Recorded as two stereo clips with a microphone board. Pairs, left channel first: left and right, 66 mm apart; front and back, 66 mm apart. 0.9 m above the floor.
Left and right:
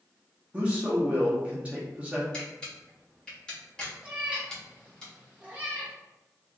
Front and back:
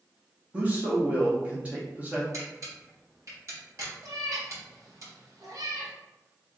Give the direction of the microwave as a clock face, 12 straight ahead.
No microwave in this recording.